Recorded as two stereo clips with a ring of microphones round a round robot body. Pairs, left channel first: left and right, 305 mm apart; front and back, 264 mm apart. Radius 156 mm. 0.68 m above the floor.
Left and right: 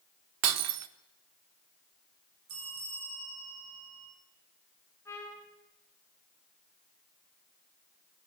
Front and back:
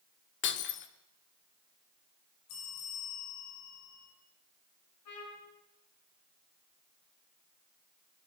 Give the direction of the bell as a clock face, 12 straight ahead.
1 o'clock.